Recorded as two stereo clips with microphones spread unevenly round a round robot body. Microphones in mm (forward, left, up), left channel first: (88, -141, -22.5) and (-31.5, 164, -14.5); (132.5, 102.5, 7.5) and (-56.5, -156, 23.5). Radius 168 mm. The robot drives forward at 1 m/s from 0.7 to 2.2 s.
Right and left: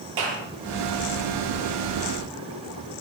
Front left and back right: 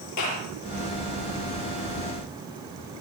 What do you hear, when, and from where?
0.2 s a clap: 95° left, 9 m